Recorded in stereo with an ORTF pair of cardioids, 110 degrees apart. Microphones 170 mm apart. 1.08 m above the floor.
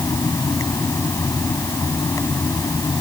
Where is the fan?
20° left.